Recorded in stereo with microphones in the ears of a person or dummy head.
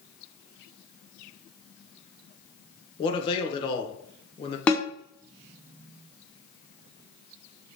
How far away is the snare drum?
About 0.6 m.